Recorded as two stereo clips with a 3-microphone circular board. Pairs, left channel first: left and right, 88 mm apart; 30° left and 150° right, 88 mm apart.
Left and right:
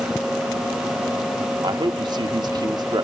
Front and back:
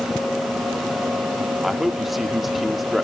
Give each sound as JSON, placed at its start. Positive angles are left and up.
{"t": 1.6, "sound": "a man speaking", "azimuth_deg": -60, "distance_m": 1.4}